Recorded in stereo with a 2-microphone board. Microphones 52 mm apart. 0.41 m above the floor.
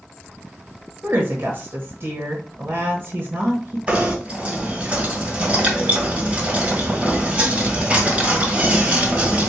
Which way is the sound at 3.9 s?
30° right (ahead or behind).